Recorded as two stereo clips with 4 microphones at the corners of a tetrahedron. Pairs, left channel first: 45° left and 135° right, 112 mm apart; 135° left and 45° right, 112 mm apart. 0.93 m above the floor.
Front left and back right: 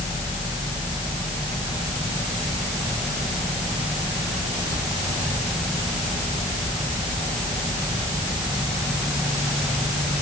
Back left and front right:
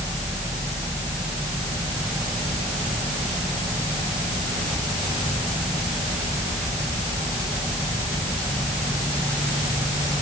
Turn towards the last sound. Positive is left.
No sound to turn to.